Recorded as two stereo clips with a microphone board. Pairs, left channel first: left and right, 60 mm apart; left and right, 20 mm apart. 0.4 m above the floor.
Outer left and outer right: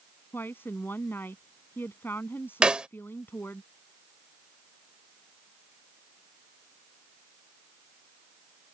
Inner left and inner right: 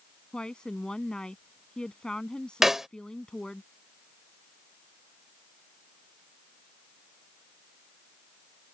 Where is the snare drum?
15° right (ahead or behind).